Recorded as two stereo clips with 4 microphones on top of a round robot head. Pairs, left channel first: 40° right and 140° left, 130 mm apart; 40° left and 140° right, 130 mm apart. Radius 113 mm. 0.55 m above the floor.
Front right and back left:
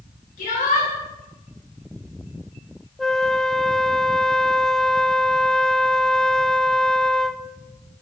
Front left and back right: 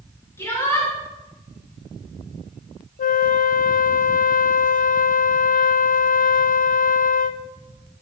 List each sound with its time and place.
0.4 s a shout: 30° right, 9.5 m
3.0 s a flute: 50° left, 0.6 m